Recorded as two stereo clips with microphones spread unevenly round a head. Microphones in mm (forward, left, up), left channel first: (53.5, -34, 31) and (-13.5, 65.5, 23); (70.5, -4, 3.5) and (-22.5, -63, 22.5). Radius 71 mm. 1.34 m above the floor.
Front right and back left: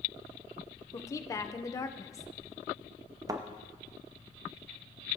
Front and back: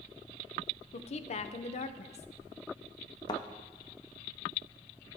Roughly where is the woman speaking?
Ahead.